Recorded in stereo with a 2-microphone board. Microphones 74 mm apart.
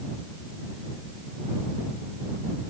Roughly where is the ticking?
No ticking in this recording.